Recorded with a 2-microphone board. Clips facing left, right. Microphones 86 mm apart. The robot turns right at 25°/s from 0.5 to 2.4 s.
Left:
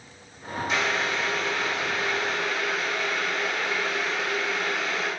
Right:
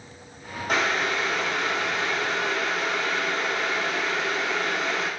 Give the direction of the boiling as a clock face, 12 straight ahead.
4 o'clock.